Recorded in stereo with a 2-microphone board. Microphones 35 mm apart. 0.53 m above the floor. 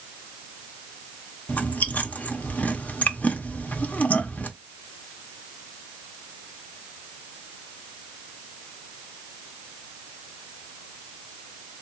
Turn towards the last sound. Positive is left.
turn(degrees=45)  # may be behind; listen again after turning